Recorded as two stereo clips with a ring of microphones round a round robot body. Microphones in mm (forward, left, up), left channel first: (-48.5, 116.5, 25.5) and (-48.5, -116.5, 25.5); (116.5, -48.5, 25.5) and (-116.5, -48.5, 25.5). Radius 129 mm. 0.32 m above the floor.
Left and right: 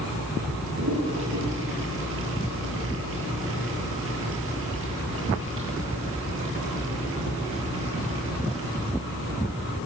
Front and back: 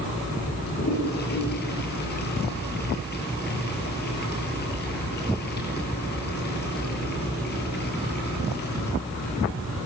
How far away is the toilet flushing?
About 9.5 m.